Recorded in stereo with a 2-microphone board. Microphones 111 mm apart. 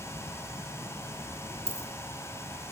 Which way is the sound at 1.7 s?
60° right (ahead or behind).